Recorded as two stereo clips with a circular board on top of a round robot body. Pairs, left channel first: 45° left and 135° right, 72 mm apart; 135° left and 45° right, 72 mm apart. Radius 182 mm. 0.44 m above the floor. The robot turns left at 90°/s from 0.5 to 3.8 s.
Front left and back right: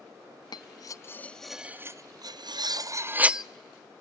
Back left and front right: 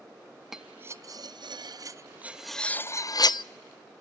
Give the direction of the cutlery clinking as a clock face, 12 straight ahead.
11 o'clock.